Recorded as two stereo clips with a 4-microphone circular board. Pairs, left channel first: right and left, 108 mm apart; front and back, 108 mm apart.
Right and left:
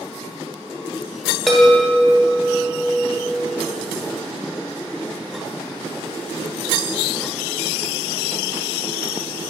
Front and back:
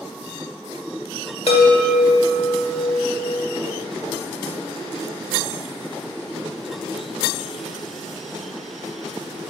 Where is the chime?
Straight ahead, 0.9 m.